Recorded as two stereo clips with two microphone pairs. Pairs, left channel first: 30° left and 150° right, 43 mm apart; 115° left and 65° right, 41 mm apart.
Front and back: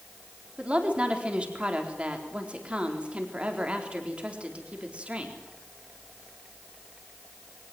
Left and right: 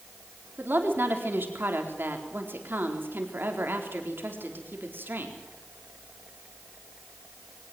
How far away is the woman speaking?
About 4 m.